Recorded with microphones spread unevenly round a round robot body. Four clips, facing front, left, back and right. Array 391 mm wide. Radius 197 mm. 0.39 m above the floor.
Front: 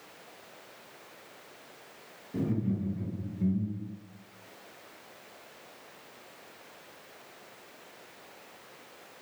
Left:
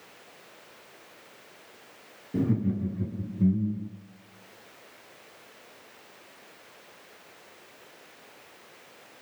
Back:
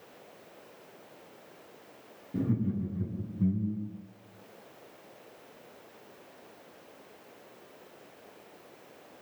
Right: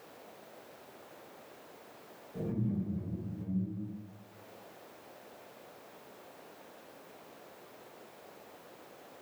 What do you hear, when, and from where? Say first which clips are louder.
2.3 s laughter: left 8 dB, even; 110° left, 6.5 m